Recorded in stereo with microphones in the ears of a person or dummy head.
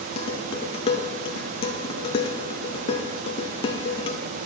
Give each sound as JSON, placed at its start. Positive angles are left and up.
{"t": 0.2, "sound": "dishes clattering", "side_deg": 35, "distance_m": 0.8}